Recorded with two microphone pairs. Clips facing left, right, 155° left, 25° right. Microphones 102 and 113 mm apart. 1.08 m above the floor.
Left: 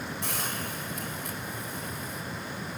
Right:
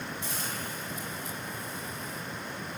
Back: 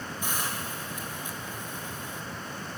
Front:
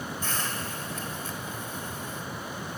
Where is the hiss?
80° left, 2.5 m.